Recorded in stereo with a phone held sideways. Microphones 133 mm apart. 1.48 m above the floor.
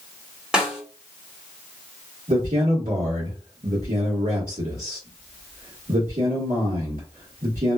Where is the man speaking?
75° right (ahead or behind), 1.4 m.